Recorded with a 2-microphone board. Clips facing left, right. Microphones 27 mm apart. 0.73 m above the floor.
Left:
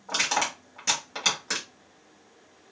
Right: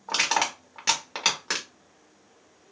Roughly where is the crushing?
Right.